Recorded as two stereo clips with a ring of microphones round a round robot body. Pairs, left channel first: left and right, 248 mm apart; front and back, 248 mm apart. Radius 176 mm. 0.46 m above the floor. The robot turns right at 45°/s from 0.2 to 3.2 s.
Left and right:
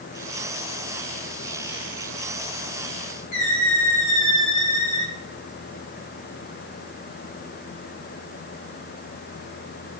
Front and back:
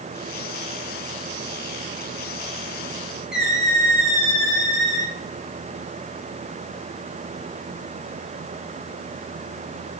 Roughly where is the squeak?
Left.